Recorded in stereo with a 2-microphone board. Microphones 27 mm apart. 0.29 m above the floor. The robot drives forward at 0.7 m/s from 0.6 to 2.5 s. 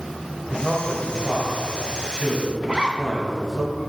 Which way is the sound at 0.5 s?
5° right (ahead or behind).